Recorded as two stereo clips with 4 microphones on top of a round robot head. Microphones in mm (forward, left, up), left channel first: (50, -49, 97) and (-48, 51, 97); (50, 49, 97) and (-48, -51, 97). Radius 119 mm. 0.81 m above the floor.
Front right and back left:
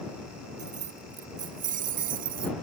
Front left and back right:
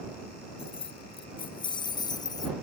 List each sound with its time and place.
0.6 s keys jangling: 95° left; by 2.5 s 110° left